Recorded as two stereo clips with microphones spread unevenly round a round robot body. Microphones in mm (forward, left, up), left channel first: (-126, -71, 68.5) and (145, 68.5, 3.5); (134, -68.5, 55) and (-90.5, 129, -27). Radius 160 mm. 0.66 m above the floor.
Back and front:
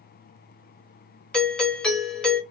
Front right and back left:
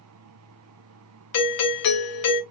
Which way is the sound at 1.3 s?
45° right.